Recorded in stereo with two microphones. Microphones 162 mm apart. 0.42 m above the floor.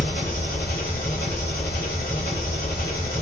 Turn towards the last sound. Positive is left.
turn(degrees=70)  # may be behind; listen again after turning